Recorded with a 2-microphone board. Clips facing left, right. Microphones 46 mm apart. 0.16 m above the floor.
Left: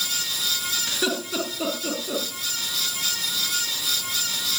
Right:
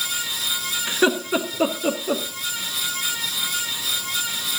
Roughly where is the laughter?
Right.